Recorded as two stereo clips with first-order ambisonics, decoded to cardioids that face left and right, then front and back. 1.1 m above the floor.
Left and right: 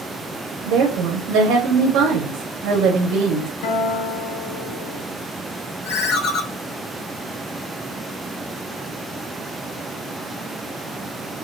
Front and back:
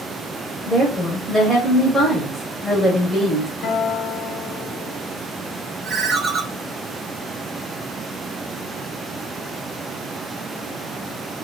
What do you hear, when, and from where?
0.7 s a woman speaking: 100° right, 0.8 m
3.6 s a guitar: 60° left, 0.8 m
5.8 s a ringtone: 115° left, 0.9 m